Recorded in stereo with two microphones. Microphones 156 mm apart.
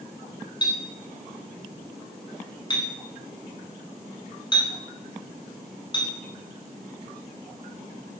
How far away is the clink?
About 1.1 m.